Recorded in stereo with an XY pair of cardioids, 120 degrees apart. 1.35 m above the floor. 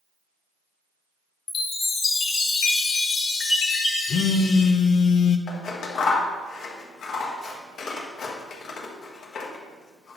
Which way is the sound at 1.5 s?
50° left.